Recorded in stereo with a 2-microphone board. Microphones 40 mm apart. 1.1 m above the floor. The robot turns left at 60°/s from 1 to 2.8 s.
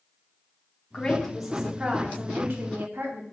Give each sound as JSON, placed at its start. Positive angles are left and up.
{"t": 0.9, "sound": "a woman speaking", "azimuth_deg": 20, "distance_m": 0.9}